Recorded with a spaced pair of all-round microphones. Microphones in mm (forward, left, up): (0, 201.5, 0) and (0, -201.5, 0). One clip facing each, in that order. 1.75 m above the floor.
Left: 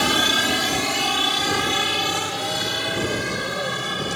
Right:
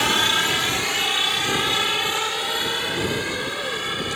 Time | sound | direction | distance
0.0 | a helicopter | 55° left (ahead or behind) | ?